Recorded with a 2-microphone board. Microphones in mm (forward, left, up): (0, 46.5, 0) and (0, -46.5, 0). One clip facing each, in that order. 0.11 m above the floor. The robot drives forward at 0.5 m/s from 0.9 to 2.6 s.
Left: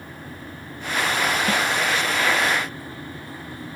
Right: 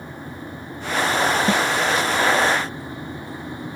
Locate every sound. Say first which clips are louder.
1.5 s a snare drum: right 3 dB; 25° right (ahead or behind), 0.6 m